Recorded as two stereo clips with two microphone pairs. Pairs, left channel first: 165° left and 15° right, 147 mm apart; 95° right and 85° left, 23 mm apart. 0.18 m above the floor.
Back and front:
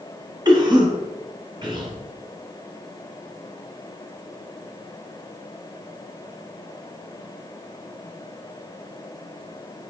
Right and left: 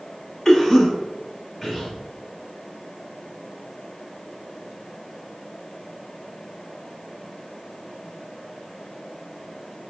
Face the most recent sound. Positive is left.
turn(degrees=-25)